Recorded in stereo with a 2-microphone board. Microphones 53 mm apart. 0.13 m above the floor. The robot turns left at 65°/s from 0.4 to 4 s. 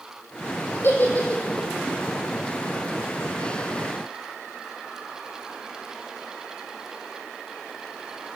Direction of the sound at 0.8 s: 50° left (ahead or behind).